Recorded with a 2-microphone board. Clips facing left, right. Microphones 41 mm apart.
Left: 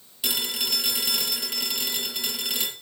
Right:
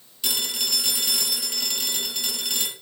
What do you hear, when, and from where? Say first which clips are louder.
0.2 s a phone ringing: even; 10° left (ahead or behind), 5.5 m